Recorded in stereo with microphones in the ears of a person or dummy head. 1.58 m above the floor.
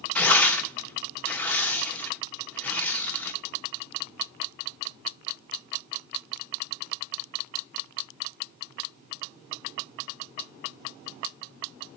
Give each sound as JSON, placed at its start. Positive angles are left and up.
{"t": 0.1, "sound": "tearing paper", "side_deg": 10, "distance_m": 1.3}